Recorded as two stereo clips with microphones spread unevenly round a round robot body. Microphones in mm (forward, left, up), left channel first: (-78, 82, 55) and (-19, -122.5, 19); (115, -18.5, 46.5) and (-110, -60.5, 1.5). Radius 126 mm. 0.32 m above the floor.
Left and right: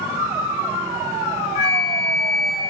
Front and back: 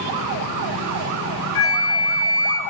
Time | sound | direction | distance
1.6 | a flute | 40° left | 0.6 m